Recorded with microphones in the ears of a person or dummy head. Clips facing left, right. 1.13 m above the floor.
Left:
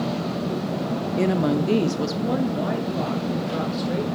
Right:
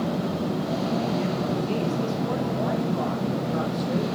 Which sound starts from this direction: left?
A woman speaking, at 1.1 s.